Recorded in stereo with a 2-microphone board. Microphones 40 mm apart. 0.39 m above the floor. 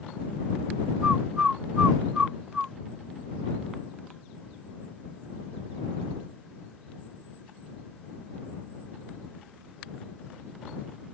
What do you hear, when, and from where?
1.0 s a bird: 25° right (ahead or behind)